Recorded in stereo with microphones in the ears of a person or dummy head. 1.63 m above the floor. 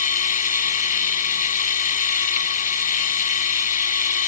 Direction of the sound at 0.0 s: 40° left (ahead or behind).